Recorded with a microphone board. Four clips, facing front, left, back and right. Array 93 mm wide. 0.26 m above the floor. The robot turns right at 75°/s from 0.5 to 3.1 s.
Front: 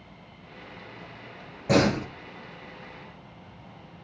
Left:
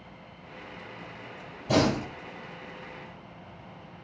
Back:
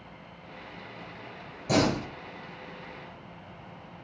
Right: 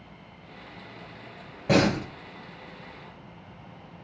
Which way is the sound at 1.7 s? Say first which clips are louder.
Right 2 dB, front 3 dB; 60° right.